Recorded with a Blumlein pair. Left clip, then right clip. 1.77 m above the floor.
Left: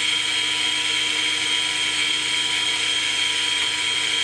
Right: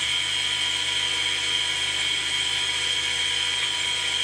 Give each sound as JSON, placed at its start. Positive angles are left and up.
{"t": 0.0, "sound": "a machine running", "azimuth_deg": 50, "distance_m": 1.0}